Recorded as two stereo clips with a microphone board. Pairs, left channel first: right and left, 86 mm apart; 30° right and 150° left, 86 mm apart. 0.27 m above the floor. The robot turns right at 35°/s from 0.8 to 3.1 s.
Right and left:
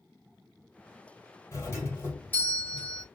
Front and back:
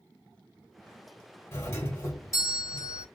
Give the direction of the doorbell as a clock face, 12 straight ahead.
2 o'clock.